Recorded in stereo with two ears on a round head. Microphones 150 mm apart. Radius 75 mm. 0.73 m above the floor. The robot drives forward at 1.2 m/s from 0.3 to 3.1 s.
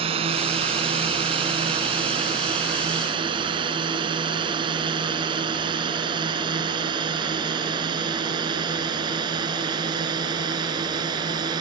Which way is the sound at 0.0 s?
35° right (ahead or behind).